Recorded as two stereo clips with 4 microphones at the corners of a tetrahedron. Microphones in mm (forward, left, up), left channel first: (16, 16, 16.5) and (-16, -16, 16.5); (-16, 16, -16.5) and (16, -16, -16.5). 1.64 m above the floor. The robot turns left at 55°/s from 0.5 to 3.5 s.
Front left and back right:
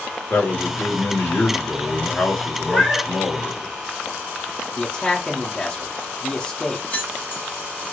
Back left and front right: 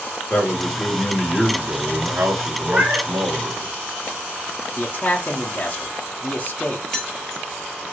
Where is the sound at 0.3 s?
85° left, 1.6 m; by 3.6 s 80° right, 1.6 m.